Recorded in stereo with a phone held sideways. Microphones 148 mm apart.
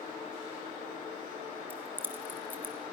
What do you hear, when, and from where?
1.7 s keys jangling: 15° right (ahead or behind), 2 m